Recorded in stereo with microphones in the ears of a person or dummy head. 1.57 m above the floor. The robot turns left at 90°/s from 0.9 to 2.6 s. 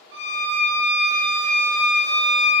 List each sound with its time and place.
0.1 s a violin: 105° right, 1.2 m; by 2.5 s 110° left, 1.2 m